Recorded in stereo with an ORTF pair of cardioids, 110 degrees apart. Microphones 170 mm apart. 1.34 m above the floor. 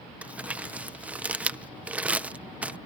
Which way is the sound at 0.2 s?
10° right.